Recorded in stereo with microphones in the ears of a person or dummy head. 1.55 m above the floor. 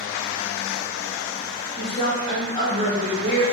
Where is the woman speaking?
25° left (ahead or behind), 1.7 m.